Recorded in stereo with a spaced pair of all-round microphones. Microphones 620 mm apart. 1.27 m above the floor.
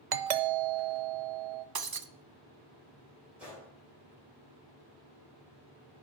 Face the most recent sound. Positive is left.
turn(degrees=0)  # may be behind; listen again after turning